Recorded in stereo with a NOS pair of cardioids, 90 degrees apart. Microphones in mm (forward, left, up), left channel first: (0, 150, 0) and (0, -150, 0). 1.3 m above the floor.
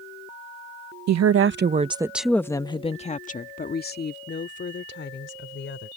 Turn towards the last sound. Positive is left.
turn(degrees=40)